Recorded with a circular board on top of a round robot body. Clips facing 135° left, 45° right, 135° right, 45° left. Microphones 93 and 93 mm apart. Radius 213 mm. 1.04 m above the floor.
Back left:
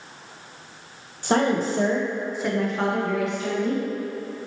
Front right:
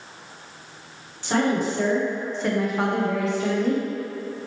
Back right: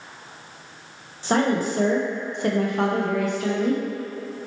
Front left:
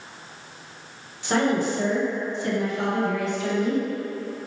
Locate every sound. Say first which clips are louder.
1.2 s a woman speaking: back left 1 dB, back right 1 dB; 175° left, 1.0 m; by 3.8 s 85° right, 1.0 m